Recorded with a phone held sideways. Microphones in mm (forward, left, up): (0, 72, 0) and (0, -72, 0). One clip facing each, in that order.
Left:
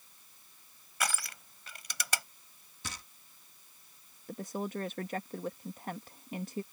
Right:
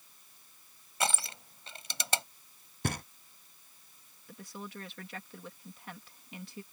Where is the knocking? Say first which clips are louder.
Right 12 dB; 55° right (ahead or behind).